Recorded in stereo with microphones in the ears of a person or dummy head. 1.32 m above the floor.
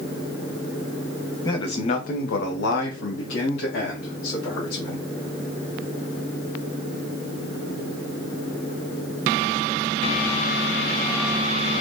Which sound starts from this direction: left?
A man speaking, at 1.4 s.